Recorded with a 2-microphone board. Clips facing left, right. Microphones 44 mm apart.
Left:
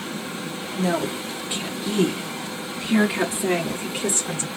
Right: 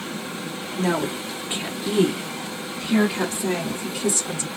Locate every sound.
0.8 s a woman speaking: 35° right (ahead or behind), 1.6 m; by 4.5 s 40° left (ahead or behind), 1.5 m